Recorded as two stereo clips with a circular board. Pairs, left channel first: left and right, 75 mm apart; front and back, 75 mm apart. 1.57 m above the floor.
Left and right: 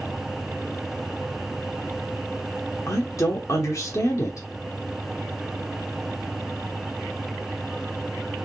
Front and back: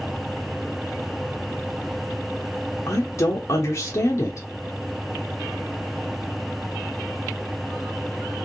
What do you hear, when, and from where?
2.9 s a woman speaking: 45° left, 1.0 m